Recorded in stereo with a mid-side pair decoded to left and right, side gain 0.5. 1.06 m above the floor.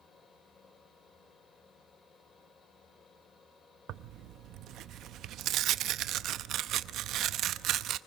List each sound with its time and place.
0.0 s a fan: 35° left, 7.5 m
3.9 s tearing paper: 70° right, 0.7 m